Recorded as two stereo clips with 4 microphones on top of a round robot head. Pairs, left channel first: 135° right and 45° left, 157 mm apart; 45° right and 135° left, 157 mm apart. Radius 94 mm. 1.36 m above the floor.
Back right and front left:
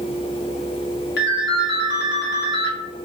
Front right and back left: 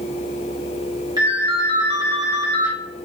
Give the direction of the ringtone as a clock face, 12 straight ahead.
5 o'clock.